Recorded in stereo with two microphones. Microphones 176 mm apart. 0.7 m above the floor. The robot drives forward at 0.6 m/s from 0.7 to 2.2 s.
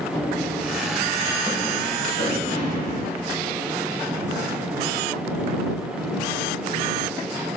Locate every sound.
0.1 s running footsteps: 20° left (ahead or behind), 1.4 m; by 2.9 s 25° left (ahead or behind), 4.5 m